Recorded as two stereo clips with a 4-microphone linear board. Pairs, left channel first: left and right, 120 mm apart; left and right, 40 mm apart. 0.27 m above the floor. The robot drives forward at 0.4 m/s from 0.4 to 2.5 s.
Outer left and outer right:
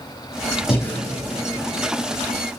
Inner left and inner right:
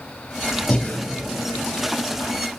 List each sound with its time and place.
0.7 s breathing: 50° left (ahead or behind), 4 m